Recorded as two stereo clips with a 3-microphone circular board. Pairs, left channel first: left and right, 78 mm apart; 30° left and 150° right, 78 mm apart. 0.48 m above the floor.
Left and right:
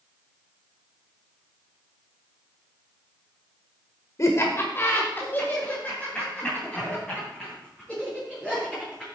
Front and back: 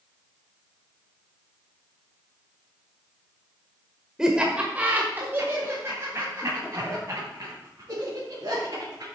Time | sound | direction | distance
4.2 | laughter | 130° left | 1.4 m